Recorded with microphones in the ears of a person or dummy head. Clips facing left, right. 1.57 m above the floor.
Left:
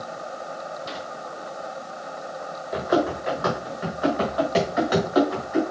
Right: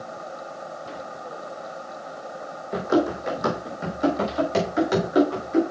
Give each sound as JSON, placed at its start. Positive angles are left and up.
{"t": 2.7, "sound": "running footsteps", "side_deg": -40, "distance_m": 3.5}